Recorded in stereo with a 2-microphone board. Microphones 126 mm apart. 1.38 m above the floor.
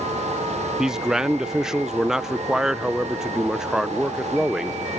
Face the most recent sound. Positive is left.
turn(degrees=-5)  # may be behind; listen again after turning